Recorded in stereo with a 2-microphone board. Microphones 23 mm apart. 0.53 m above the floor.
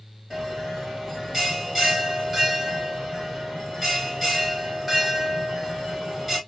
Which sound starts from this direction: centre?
A bell, at 0.3 s.